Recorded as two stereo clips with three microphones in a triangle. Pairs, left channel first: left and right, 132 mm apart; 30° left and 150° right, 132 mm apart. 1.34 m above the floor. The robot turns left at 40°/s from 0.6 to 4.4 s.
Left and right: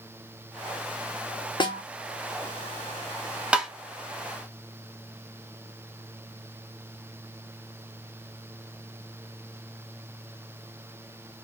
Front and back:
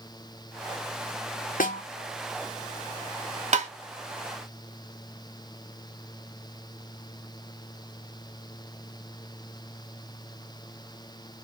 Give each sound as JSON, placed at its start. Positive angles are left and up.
{"t": 1.6, "sound": "a snare drum", "azimuth_deg": 35, "distance_m": 0.9}
{"t": 3.5, "sound": "tapping", "azimuth_deg": -170, "distance_m": 0.6}